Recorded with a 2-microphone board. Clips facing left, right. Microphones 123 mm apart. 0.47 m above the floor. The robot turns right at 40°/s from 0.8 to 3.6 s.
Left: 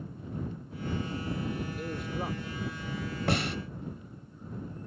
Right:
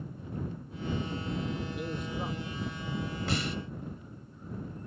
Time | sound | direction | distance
1.8 | a man speaking | 5° right (ahead or behind) | ?
3.3 | a snare drum | 55° left (ahead or behind) | ?